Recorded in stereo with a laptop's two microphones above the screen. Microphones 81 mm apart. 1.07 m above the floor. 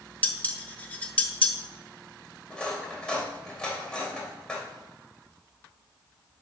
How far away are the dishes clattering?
About 0.6 m.